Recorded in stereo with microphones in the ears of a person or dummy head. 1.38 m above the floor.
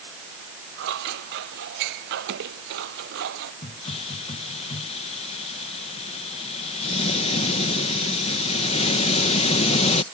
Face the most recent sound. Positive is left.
turn(degrees=35)  # may be behind; listen again after turning